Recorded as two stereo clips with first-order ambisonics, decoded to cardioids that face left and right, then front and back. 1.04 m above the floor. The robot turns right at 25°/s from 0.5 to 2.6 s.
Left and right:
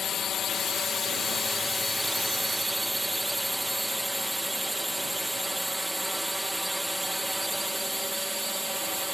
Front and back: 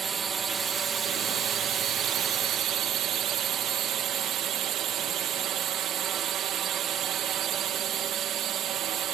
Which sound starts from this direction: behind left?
A drone, at 0.0 s.